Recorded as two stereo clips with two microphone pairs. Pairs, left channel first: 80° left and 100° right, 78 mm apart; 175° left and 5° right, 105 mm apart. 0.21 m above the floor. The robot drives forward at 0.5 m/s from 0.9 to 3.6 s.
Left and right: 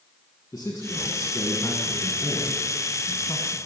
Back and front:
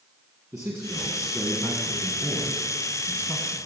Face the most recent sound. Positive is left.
turn(degrees=120)